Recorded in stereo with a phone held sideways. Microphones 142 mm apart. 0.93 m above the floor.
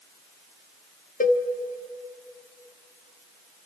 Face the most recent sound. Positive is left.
turn(degrees=70)  # may be behind; listen again after turning